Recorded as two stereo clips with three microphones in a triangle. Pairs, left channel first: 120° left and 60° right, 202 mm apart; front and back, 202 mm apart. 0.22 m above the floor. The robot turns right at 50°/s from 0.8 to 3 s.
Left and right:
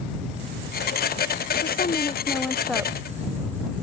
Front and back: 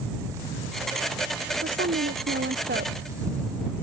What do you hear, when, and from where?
1.6 s a woman speaking: 155° left; by 3.0 s 135° right